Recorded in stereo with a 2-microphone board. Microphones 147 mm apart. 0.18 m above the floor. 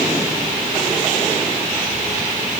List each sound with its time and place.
Only background noise.